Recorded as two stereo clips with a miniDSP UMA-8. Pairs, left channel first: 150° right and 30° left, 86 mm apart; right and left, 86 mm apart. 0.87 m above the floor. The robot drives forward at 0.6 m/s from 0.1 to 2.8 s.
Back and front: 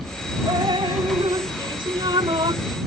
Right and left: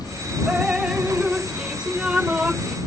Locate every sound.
0.5 s dripping: 10° left; by 2.8 s 15° left